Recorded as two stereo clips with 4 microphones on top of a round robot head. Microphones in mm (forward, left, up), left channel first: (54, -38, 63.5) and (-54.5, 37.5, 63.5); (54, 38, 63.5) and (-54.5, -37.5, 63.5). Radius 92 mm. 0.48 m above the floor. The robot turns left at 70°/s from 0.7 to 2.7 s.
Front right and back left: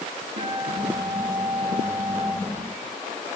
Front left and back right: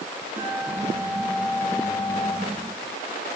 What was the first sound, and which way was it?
A guitar, straight behind.